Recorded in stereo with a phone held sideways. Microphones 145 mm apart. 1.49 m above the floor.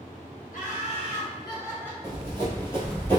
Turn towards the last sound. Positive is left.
turn(degrees=15)  # may be behind; listen again after turning